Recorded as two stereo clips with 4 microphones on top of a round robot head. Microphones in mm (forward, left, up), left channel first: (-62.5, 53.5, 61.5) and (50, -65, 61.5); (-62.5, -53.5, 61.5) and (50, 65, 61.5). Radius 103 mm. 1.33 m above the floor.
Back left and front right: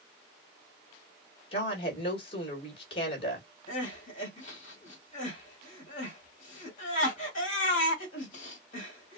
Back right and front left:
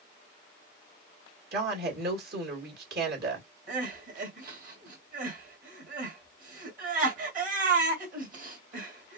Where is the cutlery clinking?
No cutlery clinking in this recording.